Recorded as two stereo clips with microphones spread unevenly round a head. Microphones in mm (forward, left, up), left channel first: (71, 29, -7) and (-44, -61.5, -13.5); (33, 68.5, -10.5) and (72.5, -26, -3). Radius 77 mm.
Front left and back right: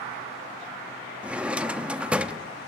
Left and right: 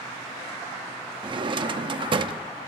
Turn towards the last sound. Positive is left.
turn(degrees=-60)